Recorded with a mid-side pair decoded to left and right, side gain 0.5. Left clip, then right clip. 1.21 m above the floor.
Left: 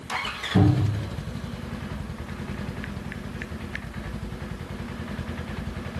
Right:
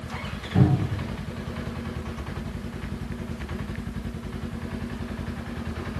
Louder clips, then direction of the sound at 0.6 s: Even; 25° left.